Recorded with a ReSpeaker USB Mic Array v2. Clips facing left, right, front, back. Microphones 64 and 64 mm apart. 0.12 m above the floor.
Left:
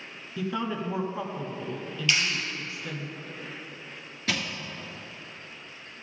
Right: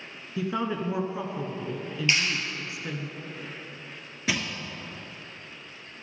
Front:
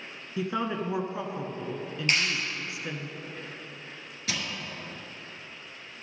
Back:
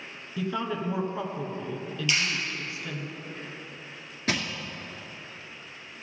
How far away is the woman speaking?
About 1.2 m.